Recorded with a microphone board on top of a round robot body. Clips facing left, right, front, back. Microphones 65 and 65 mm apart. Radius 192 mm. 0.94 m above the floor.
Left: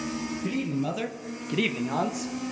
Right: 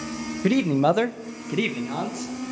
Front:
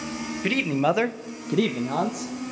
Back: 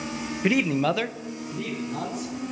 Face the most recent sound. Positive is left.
turn(degrees=20)